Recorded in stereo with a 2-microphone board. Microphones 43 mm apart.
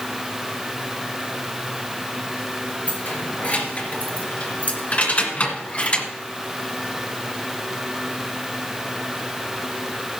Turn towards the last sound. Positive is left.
turn(degrees=30)  # may be behind; listen again after turning